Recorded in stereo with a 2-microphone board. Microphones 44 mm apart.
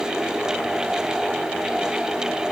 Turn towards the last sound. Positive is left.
No sound to turn to.